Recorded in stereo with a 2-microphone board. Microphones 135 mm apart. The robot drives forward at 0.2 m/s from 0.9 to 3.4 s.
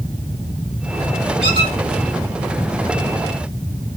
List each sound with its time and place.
1.4 s a squeak: 40° right (ahead or behind), 1.5 m